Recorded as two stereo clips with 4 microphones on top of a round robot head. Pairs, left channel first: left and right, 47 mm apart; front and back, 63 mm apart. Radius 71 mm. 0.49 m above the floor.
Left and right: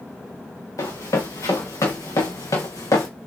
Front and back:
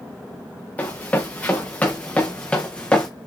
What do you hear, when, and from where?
0.8 s running footsteps: 65° left, 3.5 m; by 3.1 s 70° left, 2.5 m